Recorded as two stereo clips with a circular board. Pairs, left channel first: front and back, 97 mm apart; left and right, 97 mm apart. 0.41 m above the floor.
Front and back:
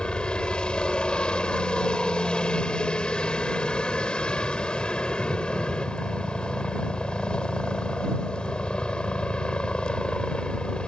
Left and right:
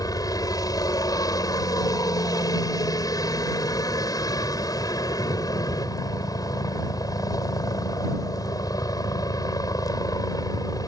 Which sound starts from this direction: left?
A helicopter, at 0.0 s.